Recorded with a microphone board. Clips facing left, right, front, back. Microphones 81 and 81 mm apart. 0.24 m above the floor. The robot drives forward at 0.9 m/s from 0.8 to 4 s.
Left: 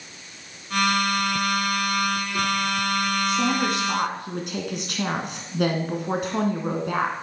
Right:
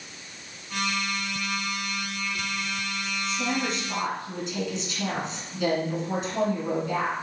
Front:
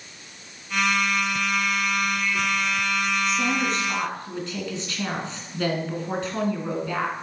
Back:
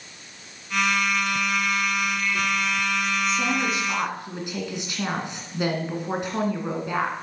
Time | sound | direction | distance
3.3 | a woman speaking | 90° left | 2 m